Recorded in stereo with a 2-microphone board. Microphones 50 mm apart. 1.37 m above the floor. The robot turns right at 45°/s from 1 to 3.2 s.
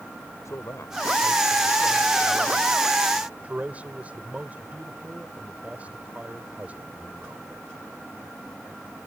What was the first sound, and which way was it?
A man speaking, 110° left.